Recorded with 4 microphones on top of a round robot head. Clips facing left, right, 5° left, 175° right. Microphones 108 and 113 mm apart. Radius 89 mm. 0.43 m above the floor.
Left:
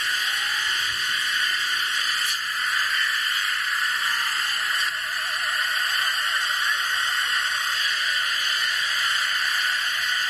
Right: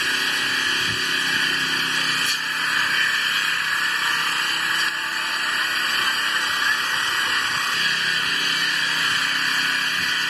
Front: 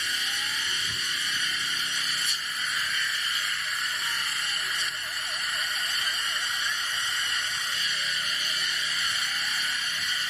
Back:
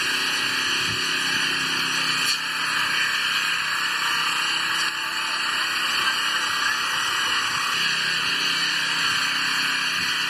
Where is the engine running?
125° right.